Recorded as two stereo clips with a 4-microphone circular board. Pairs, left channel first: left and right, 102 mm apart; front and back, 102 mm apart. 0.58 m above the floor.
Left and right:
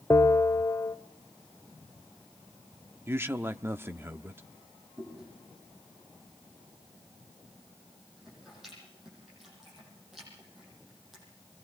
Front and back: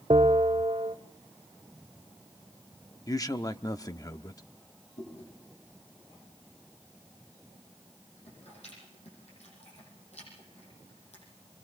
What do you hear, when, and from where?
0.1 s a bell: 150° left, 0.9 m
3.1 s a man speaking: 35° right, 0.8 m
5.0 s chewing: straight ahead, 9.5 m